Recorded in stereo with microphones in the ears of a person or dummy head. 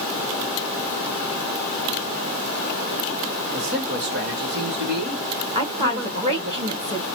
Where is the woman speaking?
25° right (ahead or behind), 0.8 m.